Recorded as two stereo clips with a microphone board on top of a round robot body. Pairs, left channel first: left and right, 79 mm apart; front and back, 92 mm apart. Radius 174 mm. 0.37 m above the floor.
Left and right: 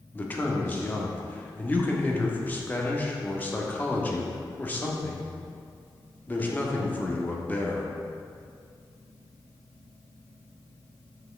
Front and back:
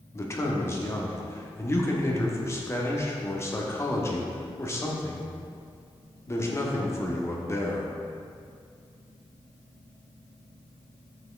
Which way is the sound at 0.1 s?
35° left.